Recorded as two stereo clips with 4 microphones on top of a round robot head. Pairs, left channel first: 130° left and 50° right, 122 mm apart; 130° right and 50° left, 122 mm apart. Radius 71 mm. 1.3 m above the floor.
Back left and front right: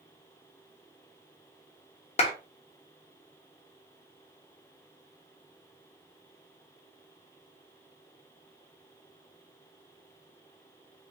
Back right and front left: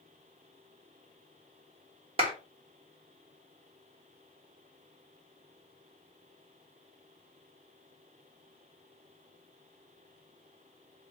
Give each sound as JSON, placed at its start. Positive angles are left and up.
{"t": 2.2, "sound": "a clap", "azimuth_deg": 90, "distance_m": 1.4}